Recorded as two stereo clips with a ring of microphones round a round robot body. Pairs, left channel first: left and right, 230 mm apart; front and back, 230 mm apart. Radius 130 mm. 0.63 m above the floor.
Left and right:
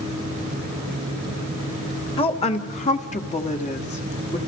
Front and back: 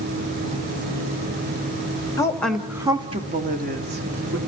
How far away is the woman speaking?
About 1.2 m.